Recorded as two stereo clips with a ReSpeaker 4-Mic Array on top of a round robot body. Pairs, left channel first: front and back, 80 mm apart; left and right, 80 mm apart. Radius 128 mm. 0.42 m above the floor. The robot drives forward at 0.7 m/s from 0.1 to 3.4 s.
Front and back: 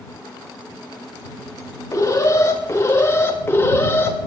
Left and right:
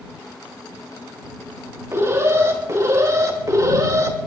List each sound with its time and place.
1.9 s an alarm: 40° right, 4 m; by 4.2 s 55° right, 3 m